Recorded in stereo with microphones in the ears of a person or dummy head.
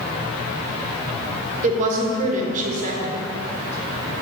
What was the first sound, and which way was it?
A woman speaking, 45° right (ahead or behind).